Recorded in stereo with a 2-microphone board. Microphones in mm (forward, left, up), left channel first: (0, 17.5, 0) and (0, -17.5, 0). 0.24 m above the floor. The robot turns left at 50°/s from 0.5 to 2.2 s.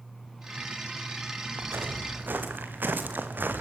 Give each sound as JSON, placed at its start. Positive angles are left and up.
{"t": 1.6, "sound": "footsteps", "side_deg": -85, "distance_m": 6.0}